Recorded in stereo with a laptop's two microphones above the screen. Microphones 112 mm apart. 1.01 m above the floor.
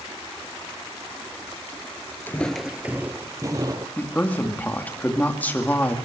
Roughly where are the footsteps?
Centre.